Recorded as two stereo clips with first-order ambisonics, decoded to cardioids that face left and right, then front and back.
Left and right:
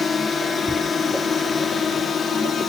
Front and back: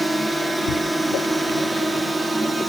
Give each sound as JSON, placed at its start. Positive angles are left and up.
{"t": 0.0, "sound": "a drone", "azimuth_deg": 100}